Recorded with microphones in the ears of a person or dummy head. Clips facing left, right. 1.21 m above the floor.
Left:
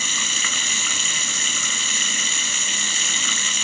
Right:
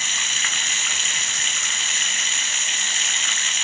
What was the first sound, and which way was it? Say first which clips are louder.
Running water: left 3 dB; 80° left.